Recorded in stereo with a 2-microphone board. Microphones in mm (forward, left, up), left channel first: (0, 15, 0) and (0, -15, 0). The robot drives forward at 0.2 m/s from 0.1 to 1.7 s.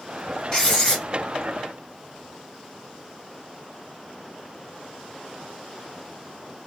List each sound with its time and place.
0.5 s writing: 20° left (ahead or behind), 2 m